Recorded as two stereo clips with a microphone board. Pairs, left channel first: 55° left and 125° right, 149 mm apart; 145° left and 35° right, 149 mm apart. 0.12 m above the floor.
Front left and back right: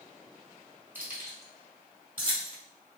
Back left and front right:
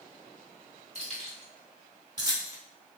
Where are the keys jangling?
50° right, 1.6 m; by 2.6 s 95° right, 1.5 m.